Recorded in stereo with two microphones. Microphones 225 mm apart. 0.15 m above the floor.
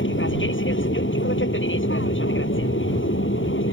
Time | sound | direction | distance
0.0 | an aircraft | 60° left (ahead or behind) | ?